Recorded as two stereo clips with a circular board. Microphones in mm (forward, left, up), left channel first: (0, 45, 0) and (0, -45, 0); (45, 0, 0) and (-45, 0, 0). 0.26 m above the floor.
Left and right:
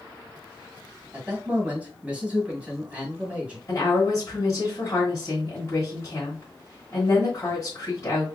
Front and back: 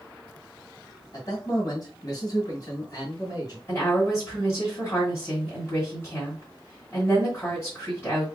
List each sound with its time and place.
1.1 s a man speaking: 20° right, 2 m
3.7 s a woman speaking: 50° left, 1.7 m